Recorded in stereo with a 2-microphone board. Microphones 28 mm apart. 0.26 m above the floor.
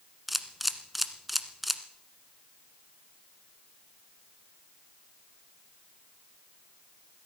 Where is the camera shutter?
5° right (ahead or behind), 1.2 m.